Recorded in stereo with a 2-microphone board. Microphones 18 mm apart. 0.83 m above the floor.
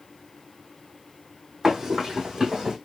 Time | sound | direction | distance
1.6 | running footsteps | 35° right (ahead or behind) | 1.4 m